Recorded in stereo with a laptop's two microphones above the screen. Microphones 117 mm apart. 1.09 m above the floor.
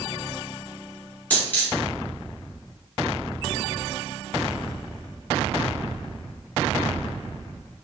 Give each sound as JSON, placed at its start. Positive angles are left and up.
{"t": 1.3, "sound": "a dropped coin", "side_deg": 15, "distance_m": 1.2}